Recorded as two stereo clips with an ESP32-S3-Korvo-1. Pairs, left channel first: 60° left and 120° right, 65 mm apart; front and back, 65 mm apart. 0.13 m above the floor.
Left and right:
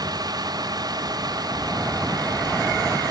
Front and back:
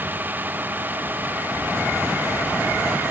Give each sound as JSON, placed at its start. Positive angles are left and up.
{"t": 0.0, "sound": "a vehicle", "azimuth_deg": -120}